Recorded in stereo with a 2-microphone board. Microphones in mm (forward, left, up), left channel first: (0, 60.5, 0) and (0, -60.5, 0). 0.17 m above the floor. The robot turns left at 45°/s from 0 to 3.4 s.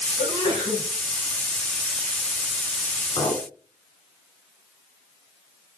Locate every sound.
0.2 s a sneeze: 40° left (ahead or behind), 1.9 m; by 0.8 s 35° left (ahead or behind), 1.9 m
3.2 s a clink: 45° left (ahead or behind), 1.3 m